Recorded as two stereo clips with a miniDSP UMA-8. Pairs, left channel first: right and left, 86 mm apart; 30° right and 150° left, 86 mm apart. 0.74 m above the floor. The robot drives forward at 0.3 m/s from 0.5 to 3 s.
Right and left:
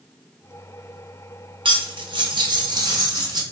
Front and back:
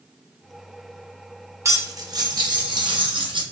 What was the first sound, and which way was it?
Cutlery clinking, 95° left.